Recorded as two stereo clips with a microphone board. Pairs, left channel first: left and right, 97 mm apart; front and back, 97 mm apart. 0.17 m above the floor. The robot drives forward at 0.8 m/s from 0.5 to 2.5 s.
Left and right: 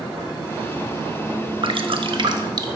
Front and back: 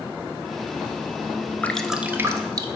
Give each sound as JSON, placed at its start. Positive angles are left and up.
{"t": 1.6, "sound": "dripping", "azimuth_deg": -75, "distance_m": 0.7}